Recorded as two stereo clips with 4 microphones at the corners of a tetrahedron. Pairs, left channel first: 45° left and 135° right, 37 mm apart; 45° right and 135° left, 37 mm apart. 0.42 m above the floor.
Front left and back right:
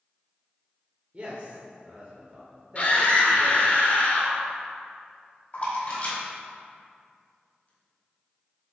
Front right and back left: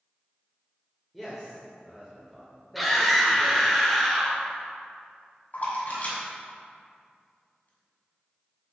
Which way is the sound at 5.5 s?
5° right.